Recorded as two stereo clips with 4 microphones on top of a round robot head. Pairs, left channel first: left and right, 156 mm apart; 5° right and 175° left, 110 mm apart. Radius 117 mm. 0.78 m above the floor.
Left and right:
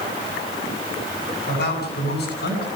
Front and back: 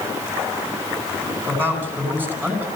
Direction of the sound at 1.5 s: 105° left.